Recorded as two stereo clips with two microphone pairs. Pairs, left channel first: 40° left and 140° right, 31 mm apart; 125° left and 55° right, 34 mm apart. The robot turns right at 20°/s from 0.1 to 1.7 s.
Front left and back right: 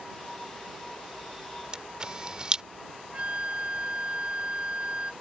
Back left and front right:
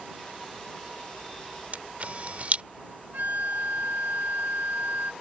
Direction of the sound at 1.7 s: 80° right.